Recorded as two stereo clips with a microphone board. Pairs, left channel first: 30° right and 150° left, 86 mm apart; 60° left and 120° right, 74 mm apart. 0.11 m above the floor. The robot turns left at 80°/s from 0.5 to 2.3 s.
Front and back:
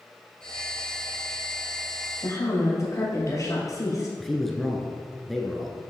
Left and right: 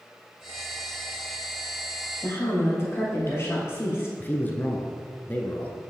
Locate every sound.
2.2 s a woman speaking: 20° left, 2 m; by 4.1 s 15° left, 2 m
4.2 s a man speaking: 55° left, 1.1 m